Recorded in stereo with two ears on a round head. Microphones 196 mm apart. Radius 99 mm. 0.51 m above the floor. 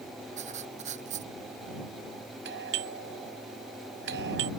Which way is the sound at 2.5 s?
60° right (ahead or behind).